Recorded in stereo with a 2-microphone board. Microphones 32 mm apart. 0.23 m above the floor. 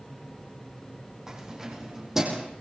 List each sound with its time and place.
1.3 s keys jangling: 15° right (ahead or behind), 8 m